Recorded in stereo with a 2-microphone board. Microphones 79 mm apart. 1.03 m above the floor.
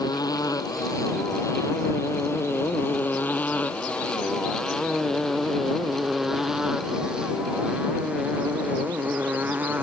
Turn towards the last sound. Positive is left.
turn(degrees=-25)  # may be behind; listen again after turning